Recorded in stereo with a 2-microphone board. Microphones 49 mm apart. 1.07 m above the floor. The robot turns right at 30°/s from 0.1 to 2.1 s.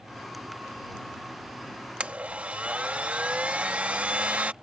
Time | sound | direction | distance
2.0 | a blender | 25° right (ahead or behind) | ?